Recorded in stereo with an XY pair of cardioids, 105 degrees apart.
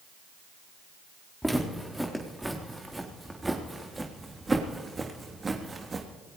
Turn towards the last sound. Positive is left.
turn(degrees=-35)